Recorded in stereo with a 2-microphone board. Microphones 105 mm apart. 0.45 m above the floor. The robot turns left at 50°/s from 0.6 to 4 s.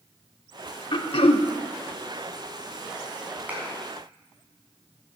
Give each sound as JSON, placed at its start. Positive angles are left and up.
{"t": 0.9, "sound": "throat clearing", "side_deg": 50, "distance_m": 0.8}
{"t": 3.5, "sound": "a clap", "side_deg": -15, "distance_m": 4.0}